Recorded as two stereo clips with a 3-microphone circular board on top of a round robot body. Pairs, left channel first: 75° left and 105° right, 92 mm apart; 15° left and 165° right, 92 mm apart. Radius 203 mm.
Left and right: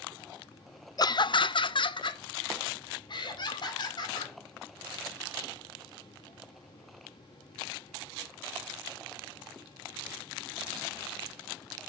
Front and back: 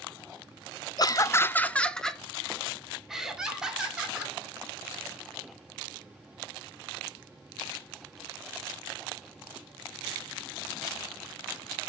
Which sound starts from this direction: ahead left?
Laughter, at 1.0 s.